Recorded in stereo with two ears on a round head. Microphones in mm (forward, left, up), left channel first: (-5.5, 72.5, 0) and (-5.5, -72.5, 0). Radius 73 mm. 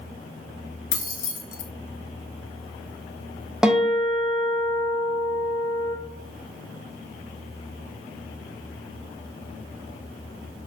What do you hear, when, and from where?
0.9 s keys jangling: 55° left (ahead or behind), 0.5 m
3.6 s a guitar: 5° right (ahead or behind), 0.7 m